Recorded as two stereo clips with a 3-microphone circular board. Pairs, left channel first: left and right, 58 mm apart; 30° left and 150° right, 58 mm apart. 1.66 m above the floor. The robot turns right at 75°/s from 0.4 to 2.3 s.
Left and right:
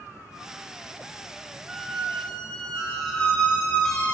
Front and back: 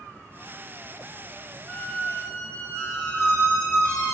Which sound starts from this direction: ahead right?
A squeak, at 1.7 s.